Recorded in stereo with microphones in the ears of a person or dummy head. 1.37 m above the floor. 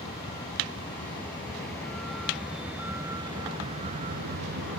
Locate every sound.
0.0 s a vehicle: 30° left (ahead or behind); by 4.8 s 55° right (ahead or behind)